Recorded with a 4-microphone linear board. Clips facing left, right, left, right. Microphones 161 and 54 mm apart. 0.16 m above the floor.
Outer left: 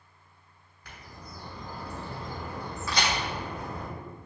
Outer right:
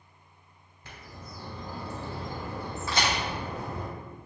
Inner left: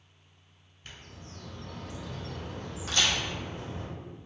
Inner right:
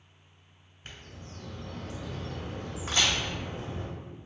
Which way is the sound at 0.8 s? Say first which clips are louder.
Outer right 1 dB, inner right 1 dB; 25° right (ahead or behind).